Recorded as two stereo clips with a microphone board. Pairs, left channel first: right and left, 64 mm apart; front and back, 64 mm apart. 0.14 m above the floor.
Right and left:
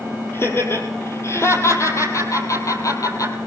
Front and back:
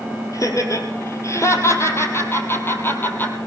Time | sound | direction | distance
0.3 | laughter | 40° right | 4 m